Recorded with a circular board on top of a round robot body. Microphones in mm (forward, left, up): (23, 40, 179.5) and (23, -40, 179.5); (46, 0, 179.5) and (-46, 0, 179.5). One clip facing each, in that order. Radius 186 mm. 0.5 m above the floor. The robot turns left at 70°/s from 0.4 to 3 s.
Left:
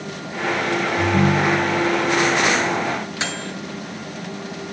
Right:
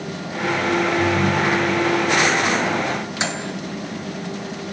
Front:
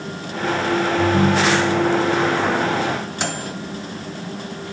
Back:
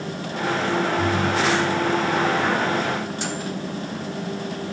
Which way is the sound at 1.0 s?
80° left.